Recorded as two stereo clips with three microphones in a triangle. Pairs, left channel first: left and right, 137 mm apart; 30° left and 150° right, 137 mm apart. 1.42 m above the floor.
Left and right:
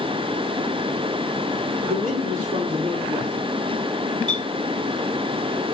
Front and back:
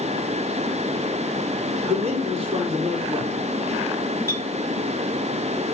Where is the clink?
40° right, 5 m.